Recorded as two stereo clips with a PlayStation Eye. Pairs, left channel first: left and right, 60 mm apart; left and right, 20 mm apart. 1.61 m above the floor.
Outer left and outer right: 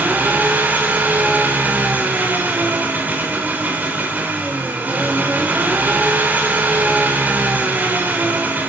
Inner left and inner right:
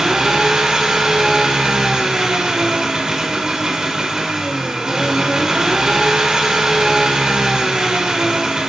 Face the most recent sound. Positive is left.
turn(degrees=-30)  # may be behind; listen again after turning